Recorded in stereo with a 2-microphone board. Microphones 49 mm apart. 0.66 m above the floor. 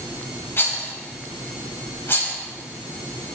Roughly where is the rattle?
Left.